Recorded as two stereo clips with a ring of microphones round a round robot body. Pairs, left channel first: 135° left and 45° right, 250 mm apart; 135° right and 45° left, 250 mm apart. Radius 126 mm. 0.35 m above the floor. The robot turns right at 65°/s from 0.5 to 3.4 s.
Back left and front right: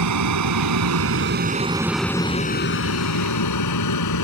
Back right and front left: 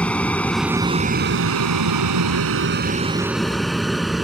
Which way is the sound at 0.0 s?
50° right.